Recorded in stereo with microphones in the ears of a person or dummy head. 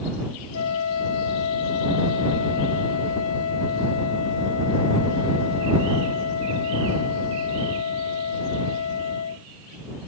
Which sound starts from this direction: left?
A flute, at 0.5 s.